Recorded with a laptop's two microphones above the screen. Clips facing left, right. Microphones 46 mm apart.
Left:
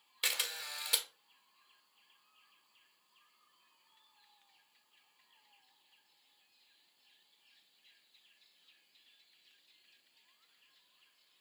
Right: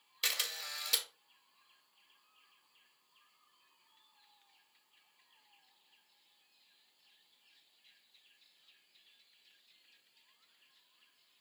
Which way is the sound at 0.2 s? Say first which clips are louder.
Even; 15° left (ahead or behind).